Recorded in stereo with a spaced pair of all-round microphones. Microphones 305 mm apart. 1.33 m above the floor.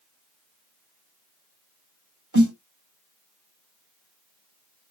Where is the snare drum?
70° right (ahead or behind), 1.6 m.